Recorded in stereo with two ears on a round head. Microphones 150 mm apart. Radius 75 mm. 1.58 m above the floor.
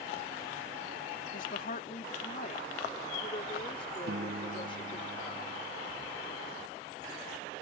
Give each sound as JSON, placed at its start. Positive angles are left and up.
{"t": 1.3, "sound": "a woman speaking", "side_deg": 60}
{"t": 4.1, "sound": "a piano", "side_deg": -65}